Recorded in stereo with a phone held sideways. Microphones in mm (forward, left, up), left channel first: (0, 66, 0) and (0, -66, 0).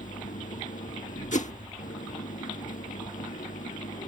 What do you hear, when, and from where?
0.0 s an engine running: 85° left
1.3 s a whoosh: 70° left (ahead or behind)